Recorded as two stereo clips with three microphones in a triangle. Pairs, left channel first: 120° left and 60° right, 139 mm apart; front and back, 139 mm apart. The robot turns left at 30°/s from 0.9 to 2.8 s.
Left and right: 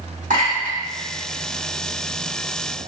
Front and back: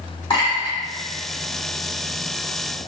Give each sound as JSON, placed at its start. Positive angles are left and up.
{"t": 0.3, "sound": "a clink", "azimuth_deg": -55, "distance_m": 1.4}